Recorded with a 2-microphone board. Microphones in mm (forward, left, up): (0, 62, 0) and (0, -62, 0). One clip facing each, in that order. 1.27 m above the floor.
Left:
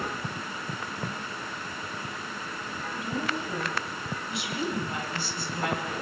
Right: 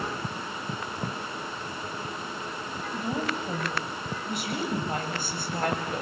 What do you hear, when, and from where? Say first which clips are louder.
2.9 s a woman speaking: right 2 dB; 40° right (ahead or behind), 9.5 m; by 6.0 s 50° right (ahead or behind), 7.5 m